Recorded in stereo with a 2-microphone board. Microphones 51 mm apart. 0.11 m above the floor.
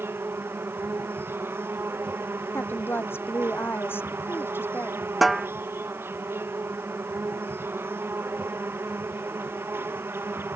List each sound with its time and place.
0.0 s an insect: 50° right (ahead or behind)
2.5 s a woman speaking: 50° left (ahead or behind)
5.2 s a snare drum: centre (ahead or behind)